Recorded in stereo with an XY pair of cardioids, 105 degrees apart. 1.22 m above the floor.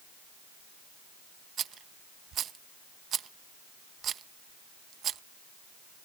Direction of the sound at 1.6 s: 60° right.